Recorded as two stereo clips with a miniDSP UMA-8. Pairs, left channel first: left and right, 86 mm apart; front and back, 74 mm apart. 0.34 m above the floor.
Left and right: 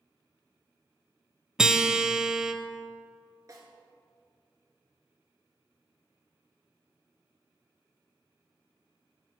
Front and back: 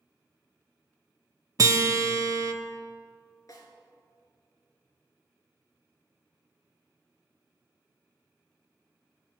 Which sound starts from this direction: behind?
A guitar, at 1.6 s.